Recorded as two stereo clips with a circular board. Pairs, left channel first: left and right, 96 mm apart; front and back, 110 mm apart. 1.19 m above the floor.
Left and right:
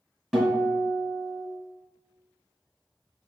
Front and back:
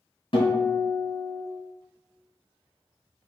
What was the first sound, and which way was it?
A guitar, 5° right.